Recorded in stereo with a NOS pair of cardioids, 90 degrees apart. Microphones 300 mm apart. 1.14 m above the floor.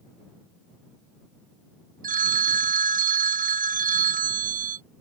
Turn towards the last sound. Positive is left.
turn(degrees=-25)